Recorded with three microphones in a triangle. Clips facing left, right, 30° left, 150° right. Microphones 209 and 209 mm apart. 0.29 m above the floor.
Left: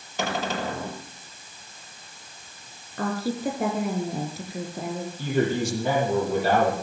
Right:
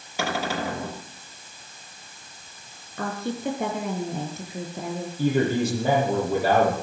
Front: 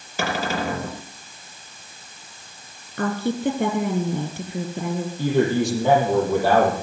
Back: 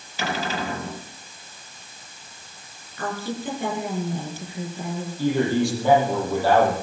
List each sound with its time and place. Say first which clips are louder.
0.2 s a cupboard door: right 1 dB, front 3 dB; 10° right, 5 m
3.0 s a woman speaking: left 2 dB, front 6 dB; 5° left, 5 m
5.2 s a man speaking: right 2 dB, front 1 dB; 40° right, 8 m